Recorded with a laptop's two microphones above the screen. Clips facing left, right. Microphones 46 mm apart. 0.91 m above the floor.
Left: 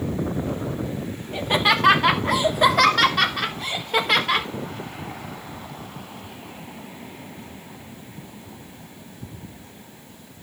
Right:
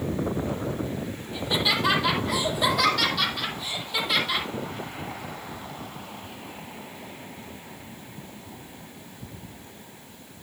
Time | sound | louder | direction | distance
1.3 | laughter | left 6 dB | 55° left (ahead or behind) | 2 m